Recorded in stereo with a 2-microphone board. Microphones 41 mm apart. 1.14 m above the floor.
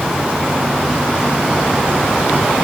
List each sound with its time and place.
Only background noise.